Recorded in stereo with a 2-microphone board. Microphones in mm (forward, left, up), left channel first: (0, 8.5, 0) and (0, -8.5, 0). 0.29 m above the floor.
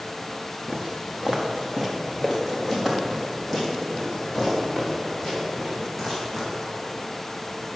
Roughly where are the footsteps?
Centre.